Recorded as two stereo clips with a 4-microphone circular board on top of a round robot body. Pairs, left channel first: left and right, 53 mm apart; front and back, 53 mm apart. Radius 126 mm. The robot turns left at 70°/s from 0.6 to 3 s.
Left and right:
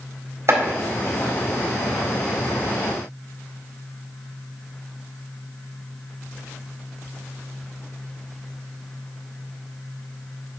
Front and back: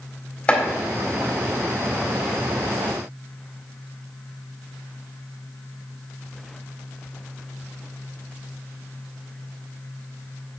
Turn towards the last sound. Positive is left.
turn(degrees=125)